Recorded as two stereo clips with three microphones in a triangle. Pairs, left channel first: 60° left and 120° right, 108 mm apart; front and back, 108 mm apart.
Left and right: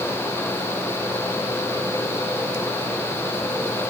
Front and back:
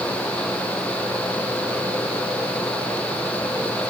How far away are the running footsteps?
I don't hear running footsteps.